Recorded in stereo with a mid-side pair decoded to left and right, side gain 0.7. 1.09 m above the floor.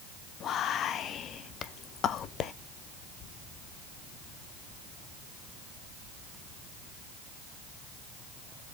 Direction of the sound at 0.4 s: 40° left.